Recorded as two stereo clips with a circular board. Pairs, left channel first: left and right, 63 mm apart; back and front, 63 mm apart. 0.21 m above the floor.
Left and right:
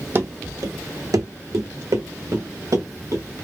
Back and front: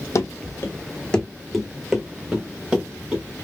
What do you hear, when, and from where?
0.1 s running footsteps: 145° right, 0.6 m; by 3.2 s 75° right, 1.7 m